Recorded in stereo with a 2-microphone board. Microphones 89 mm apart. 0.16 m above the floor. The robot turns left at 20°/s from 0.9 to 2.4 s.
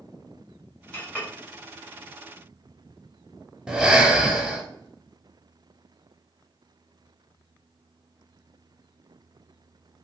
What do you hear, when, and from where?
0.9 s a clink: 15° left (ahead or behind), 1.0 m; by 1.3 s 20° left (ahead or behind), 1.0 m
3.7 s breathing: 10° right (ahead or behind), 0.6 m